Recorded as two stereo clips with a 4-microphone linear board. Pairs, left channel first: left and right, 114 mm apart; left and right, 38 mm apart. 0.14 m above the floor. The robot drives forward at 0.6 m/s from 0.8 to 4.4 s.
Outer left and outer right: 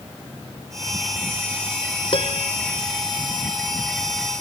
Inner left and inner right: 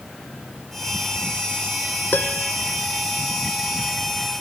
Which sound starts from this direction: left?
A piano, at 2.1 s.